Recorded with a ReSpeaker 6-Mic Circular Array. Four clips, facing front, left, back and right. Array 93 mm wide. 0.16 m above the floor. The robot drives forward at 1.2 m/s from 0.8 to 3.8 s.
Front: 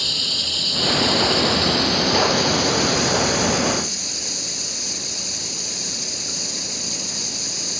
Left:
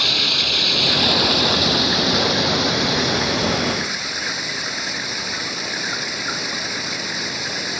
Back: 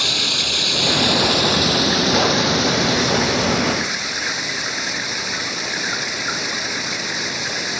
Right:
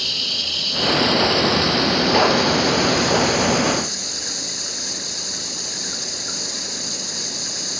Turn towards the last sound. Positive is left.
turn(degrees=150)